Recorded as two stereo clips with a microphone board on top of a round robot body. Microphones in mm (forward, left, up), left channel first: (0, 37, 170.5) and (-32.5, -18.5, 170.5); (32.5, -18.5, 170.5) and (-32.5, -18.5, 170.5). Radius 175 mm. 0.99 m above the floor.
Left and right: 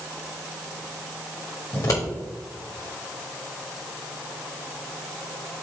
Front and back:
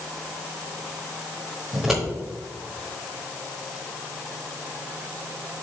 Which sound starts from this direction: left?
Scissors, at 1.7 s.